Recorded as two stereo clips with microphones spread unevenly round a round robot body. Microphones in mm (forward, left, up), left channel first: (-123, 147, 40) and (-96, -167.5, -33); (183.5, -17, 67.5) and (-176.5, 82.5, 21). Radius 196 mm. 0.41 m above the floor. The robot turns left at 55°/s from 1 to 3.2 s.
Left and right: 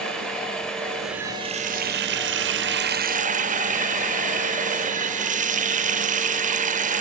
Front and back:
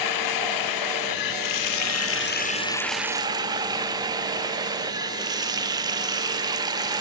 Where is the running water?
5° right, 1.0 m; by 7.0 s 125° right, 1.0 m.